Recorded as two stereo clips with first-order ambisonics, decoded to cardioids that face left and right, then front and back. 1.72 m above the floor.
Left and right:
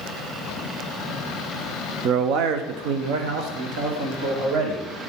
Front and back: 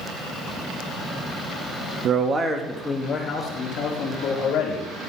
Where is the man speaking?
135° right, 0.7 m; by 4.9 s 50° right, 2.5 m.